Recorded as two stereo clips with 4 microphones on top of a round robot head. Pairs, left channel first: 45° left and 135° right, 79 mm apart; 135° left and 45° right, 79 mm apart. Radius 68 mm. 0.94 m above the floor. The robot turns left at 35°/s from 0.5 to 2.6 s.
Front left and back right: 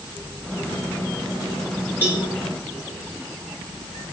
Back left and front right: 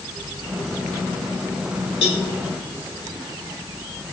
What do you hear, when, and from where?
2.0 s a cowbell: 155° left, 3 m; by 2.2 s 150° left, 3 m